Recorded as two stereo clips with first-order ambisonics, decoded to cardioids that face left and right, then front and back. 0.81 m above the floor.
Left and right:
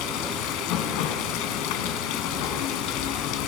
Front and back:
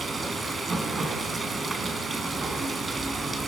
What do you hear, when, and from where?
0.0 s running water: 105° left, 3.5 m